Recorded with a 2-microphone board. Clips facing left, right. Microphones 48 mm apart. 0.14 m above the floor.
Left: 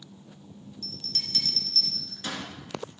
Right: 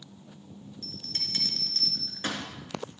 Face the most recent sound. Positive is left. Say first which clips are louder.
# left 2 dB
turn(degrees=-35)  # may be behind; listen again after turning